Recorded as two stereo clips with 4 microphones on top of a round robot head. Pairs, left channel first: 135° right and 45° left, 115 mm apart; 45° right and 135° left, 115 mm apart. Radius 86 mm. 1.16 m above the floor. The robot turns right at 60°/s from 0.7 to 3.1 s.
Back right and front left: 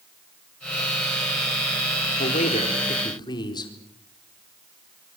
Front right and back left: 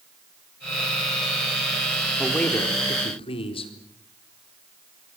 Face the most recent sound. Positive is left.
turn(degrees=-85)